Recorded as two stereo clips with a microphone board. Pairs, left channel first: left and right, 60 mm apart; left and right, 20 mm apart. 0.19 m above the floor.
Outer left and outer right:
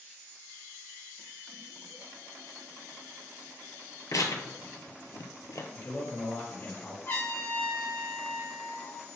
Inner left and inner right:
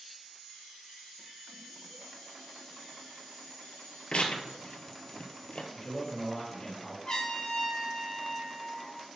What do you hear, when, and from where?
4.1 s tearing paper: 70° left (ahead or behind), 0.7 m
5.7 s a man speaking: 50° left (ahead or behind), 2 m
7.0 s a trumpet: 45° left (ahead or behind), 1.8 m